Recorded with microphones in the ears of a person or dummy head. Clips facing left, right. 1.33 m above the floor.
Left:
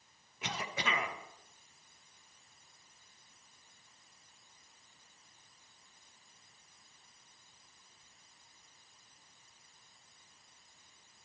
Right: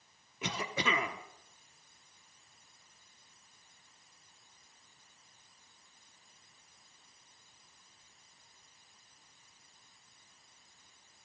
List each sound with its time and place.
0.4 s a cough: 70° right (ahead or behind), 1.2 m